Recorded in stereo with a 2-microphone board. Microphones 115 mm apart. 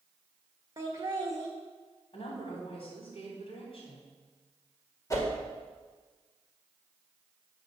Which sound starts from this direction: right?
Laughter, at 0.8 s.